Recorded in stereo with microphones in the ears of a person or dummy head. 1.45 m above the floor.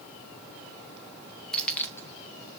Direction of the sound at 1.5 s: 5° left (ahead or behind).